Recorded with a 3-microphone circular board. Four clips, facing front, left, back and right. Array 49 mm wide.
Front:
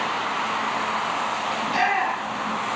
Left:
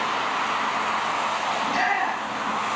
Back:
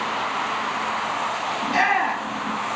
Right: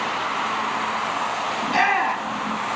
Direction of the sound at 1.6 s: 100° right.